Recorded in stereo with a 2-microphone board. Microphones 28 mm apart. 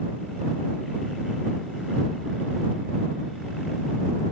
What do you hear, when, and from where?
Only background noise.